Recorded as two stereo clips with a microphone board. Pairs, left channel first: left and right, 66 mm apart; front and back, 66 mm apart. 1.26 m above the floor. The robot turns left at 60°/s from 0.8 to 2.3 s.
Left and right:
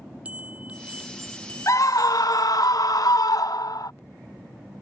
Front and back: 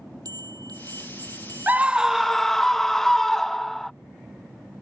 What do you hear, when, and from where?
0.2 s a bell: 160° right; by 2.7 s 110° left
1.7 s a scream: 120° left; by 3.9 s 85° left